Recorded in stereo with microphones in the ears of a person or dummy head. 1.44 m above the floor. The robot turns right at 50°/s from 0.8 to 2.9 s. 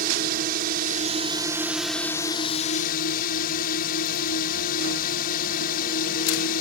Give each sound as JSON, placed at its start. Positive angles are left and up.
{"t": 0.0, "sound": "a drone", "azimuth_deg": -55}